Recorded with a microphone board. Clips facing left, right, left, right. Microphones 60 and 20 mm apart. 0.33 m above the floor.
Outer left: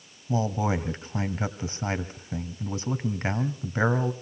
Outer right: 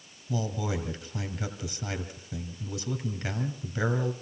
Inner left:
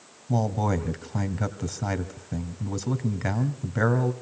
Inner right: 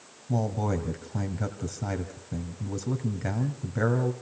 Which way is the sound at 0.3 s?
35° left (ahead or behind).